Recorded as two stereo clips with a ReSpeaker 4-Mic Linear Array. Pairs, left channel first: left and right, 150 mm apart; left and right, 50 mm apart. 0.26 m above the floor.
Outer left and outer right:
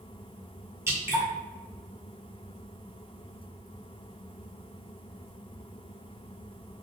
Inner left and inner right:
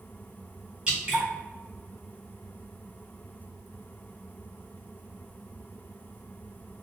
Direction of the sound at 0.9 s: 20° right (ahead or behind).